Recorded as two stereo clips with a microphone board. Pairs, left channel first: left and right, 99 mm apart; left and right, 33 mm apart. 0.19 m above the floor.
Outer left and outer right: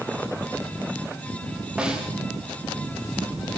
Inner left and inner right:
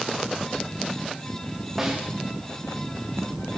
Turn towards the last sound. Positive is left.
turn(degrees=-10)  # may be behind; listen again after turning